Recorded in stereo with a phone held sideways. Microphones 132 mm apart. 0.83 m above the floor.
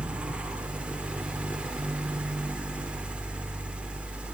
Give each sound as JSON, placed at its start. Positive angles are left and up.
{"t": 0.0, "sound": "a fan", "side_deg": -10, "distance_m": 1.6}